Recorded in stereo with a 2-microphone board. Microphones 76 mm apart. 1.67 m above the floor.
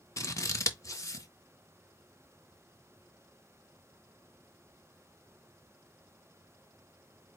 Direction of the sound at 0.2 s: 40° left (ahead or behind).